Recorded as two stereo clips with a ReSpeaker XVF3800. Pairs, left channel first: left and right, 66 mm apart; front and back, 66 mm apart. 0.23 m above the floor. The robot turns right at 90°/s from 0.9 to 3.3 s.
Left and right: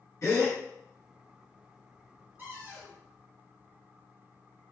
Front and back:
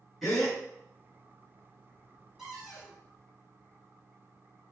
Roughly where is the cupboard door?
Right.